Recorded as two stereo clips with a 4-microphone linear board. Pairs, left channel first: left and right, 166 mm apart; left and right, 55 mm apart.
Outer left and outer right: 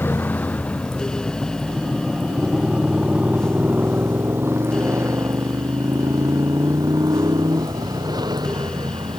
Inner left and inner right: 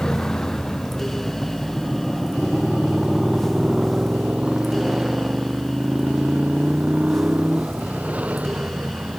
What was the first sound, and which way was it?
A motorcycle, 10° left (ahead or behind).